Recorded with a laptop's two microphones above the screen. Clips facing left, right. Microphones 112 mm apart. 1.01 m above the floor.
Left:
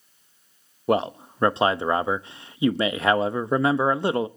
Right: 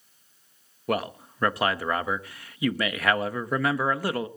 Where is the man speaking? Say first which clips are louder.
Left 6 dB; 25° left (ahead or behind), 0.7 m.